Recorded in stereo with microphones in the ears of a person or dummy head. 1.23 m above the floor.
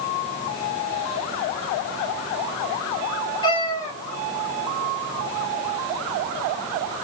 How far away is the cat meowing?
About 1.2 m.